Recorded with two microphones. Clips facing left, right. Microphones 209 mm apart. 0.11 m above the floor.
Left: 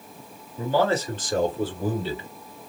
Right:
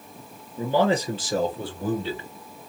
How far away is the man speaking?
About 2 m.